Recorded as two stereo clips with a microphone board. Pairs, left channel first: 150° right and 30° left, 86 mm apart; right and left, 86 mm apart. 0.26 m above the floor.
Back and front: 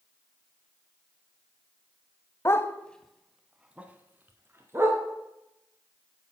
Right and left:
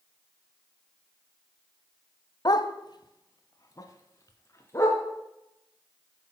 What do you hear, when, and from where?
2.5 s a dog barking: 105° right, 0.6 m; by 5.0 s 30° right, 1.9 m